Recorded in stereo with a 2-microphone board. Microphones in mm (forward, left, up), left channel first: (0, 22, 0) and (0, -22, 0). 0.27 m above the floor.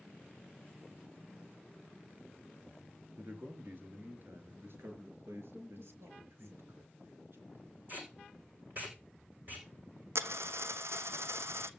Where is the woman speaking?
60° right (ahead or behind), 4 m.